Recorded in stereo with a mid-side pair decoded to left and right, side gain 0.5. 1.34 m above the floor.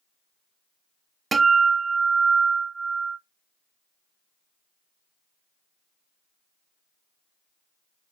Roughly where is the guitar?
Ahead right.